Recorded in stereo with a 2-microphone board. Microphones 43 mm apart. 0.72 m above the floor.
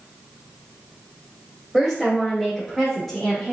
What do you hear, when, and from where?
1.7 s a woman speaking: 10° right (ahead or behind), 2.5 m; by 3.5 s centre (ahead or behind), 1.3 m